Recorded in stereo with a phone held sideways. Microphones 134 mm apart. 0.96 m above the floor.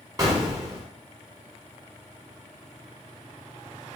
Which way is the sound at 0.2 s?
25° right (ahead or behind).